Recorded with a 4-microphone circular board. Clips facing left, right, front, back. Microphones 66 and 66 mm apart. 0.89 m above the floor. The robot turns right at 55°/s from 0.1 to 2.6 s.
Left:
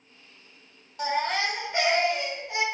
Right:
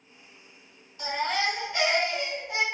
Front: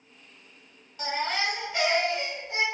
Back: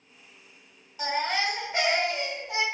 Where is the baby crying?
95° left, 1.4 m; by 2.6 s 175° right, 1.4 m.